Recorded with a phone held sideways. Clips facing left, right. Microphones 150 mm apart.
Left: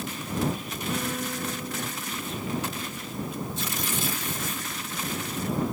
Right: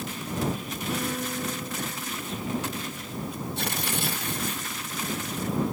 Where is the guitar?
5° right (ahead or behind).